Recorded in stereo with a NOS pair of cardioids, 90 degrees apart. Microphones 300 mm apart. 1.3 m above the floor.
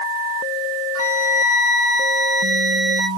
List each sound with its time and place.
0.9 s a flute: 55° right, 1.5 m